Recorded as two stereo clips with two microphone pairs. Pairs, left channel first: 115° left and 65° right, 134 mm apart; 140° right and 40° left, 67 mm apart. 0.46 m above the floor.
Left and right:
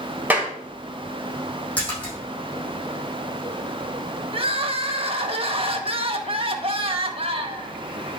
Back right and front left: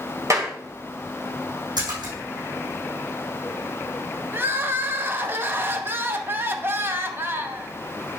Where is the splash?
35° left, 4.5 m.